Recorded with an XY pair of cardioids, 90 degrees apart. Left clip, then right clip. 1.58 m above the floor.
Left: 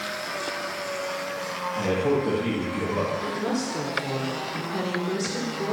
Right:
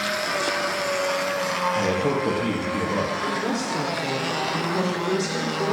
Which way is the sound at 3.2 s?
25° right.